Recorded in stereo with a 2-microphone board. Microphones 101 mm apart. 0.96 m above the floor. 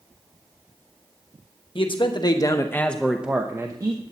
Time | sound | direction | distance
1.8 | a man speaking | 55° left (ahead or behind) | 1.1 m